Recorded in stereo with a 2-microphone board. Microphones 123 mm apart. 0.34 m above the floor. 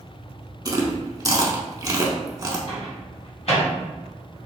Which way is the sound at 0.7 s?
30° right (ahead or behind).